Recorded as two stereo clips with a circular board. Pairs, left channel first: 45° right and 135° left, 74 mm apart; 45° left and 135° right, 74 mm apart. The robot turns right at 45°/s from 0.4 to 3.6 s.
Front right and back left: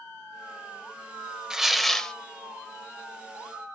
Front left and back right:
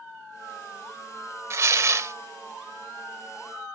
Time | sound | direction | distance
1.5 | tearing paper | 150° right | 0.8 m